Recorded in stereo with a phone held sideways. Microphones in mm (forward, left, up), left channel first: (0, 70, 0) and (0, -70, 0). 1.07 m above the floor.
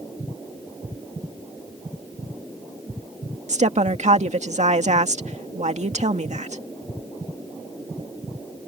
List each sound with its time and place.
3.5 s a woman speaking: 60° right (ahead or behind)